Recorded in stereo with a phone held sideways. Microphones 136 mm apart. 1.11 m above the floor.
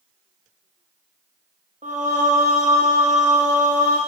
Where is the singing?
60° right (ahead or behind), 0.7 m.